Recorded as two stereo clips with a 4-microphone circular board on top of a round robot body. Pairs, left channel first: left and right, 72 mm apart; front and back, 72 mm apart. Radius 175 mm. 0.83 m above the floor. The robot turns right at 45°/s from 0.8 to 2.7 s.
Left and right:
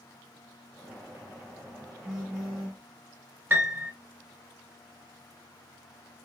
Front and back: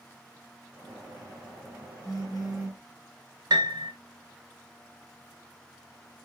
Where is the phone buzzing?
15° right, 1.6 m; by 2.8 s 15° left, 1.6 m.